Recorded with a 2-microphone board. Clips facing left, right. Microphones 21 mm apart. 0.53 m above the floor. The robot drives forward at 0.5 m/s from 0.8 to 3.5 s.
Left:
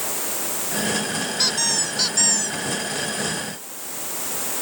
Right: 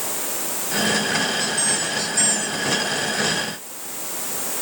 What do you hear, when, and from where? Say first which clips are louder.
1.4 s a squeak: left 1 dB; 50° left (ahead or behind); by 2.6 s 40° left (ahead or behind)